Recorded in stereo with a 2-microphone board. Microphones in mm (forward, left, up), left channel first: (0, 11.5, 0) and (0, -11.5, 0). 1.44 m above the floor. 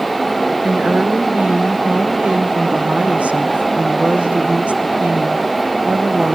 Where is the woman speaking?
70° right (ahead or behind), 1.3 m.